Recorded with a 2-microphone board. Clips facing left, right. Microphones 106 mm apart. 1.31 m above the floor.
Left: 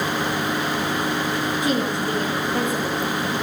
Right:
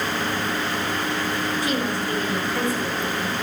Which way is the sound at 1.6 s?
25° left (ahead or behind).